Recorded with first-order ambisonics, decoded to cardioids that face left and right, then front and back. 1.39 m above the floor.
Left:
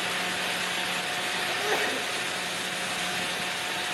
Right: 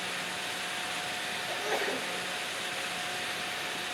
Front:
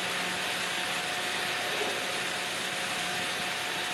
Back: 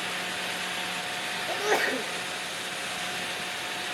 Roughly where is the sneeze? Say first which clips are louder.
Left 3 dB, back 4 dB; behind.